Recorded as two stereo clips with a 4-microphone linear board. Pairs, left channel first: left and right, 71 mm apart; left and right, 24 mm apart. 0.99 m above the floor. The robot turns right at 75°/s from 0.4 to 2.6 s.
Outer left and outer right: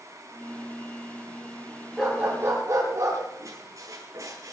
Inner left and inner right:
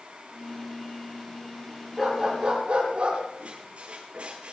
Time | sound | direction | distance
2.0 | a dog barking | straight behind | 8 m
3.4 | a squeak | 50° right (ahead or behind) | 8.5 m